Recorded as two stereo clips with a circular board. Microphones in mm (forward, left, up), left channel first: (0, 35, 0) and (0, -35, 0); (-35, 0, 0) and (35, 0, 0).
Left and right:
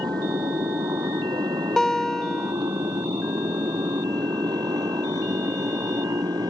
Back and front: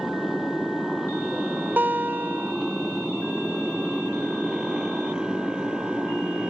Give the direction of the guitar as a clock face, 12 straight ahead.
12 o'clock.